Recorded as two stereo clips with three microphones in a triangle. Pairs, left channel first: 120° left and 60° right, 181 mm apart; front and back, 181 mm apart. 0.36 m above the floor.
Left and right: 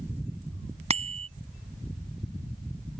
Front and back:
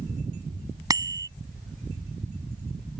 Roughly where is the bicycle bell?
Right.